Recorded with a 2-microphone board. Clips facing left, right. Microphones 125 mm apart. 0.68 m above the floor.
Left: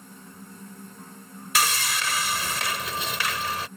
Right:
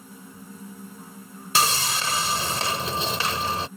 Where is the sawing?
30° right (ahead or behind).